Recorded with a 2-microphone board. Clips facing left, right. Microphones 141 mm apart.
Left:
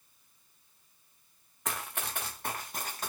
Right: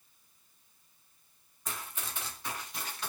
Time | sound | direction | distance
1.6 | running footsteps | 80° left | 0.7 m